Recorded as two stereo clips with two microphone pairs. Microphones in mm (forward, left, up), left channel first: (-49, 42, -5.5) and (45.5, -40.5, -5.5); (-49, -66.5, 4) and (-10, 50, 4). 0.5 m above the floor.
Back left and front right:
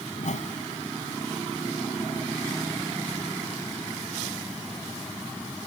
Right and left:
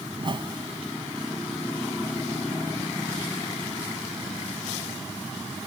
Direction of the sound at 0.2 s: 120° left.